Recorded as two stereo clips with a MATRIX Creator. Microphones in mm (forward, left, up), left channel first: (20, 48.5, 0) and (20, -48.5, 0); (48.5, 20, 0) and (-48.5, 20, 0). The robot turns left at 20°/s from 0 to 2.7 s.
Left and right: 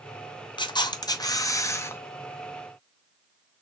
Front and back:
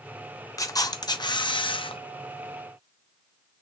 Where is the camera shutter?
55° left, 0.6 m; by 2.0 s 25° left, 0.6 m.